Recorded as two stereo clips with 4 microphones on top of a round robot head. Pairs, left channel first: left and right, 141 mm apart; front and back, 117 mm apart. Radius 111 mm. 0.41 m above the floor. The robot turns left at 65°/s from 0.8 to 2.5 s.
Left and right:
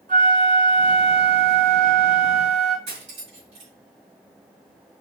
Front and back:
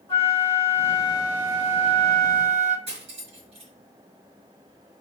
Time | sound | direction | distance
0.1 | a flute | 65° right | 3.5 m
2.9 | cutlery clinking | 135° right | 3 m